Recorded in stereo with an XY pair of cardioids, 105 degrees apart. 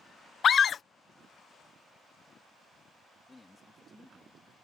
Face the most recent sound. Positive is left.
turn(degrees=20)